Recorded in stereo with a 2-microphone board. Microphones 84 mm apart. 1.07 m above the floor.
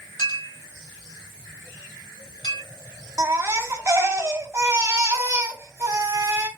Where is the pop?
I don't hear a pop.